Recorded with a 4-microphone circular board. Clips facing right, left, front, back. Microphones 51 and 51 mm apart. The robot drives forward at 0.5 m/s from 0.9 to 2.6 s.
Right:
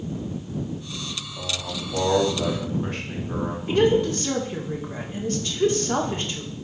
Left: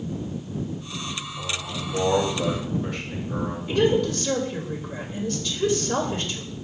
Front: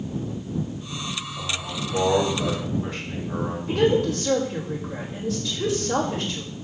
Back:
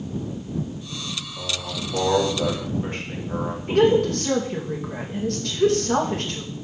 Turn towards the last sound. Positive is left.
turn(degrees=-150)